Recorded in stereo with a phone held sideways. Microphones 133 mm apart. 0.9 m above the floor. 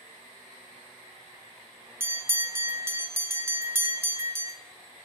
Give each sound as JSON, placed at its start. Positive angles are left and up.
{"t": 2.0, "sound": "a bell", "side_deg": -20, "distance_m": 0.6}